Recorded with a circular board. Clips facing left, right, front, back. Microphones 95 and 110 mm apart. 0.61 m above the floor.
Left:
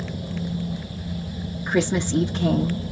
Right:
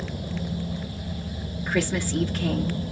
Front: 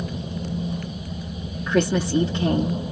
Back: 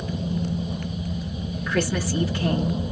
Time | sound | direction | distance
1.7 | a woman speaking | 45° left | 0.8 m